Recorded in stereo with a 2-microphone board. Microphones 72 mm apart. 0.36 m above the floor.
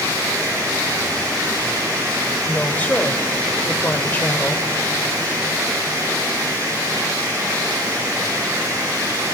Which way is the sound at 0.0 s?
55° right (ahead or behind).